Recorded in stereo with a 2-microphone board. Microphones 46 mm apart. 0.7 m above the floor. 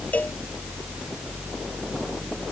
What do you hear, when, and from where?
0.1 s a cowbell: 35° left (ahead or behind)